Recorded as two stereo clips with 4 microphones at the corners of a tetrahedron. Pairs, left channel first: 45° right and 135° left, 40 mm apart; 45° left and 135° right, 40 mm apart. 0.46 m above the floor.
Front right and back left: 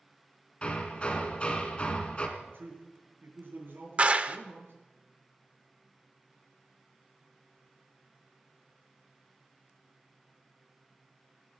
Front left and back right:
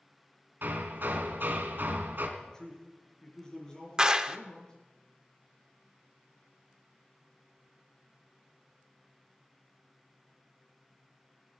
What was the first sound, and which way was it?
Hammering, 105° right.